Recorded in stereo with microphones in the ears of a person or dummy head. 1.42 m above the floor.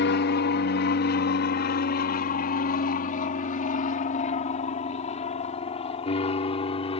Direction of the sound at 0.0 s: 55° left (ahead or behind).